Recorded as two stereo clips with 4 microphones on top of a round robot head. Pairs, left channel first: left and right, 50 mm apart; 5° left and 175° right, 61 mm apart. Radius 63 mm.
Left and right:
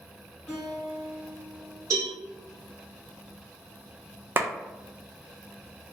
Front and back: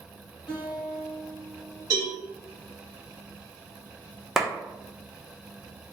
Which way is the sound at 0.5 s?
20° left.